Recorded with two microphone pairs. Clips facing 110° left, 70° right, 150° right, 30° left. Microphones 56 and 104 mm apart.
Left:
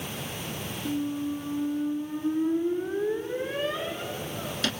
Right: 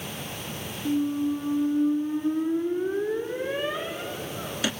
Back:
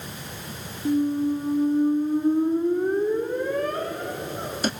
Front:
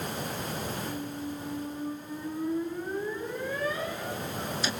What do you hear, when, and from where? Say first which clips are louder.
0.8 s a squeak: right 5 dB, back 13 dB; 150° right, 1.1 m